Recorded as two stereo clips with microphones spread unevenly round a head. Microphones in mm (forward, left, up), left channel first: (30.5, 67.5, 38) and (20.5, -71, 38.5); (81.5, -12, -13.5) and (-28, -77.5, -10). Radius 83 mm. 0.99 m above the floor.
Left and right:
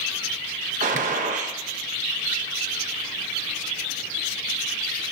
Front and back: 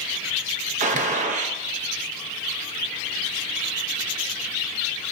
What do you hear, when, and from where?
0.8 s a gunshot: 130° right, 0.6 m